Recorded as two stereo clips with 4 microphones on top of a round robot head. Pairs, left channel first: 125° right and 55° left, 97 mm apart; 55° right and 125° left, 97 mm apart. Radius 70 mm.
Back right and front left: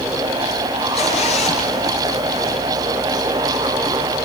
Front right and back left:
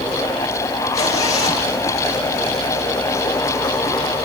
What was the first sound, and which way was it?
A zipper, 110° right.